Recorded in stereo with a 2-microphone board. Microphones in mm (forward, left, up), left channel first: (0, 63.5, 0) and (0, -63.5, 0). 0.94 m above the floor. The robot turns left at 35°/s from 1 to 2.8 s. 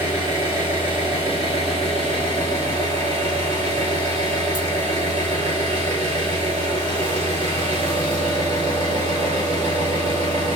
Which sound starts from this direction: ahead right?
An engine running, at 0.0 s.